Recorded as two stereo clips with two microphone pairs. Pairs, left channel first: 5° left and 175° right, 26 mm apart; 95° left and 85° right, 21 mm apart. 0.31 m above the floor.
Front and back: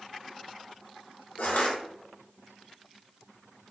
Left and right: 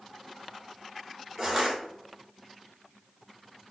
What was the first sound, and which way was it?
Crushing, 5° right.